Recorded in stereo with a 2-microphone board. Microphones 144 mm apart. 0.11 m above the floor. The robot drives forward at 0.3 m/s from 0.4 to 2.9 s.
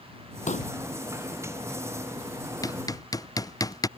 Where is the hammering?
25° left (ahead or behind).